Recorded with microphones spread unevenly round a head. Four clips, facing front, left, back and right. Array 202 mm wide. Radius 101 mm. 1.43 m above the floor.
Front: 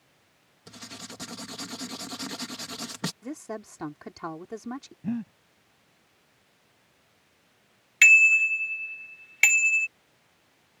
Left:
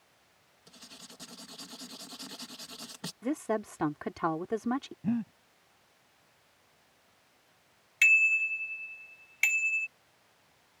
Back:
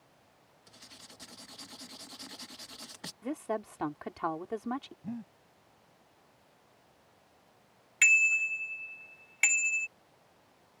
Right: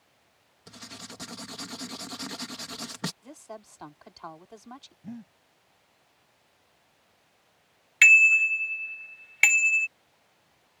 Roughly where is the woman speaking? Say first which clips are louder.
Left 13 dB, back 2 dB; left.